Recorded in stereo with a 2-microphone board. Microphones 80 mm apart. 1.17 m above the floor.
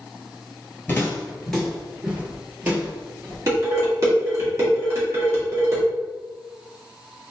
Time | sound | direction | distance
0.9 | footsteps | 25° left (ahead or behind) | 1.2 m
3.5 | dishes clattering | 40° right (ahead or behind) | 1.5 m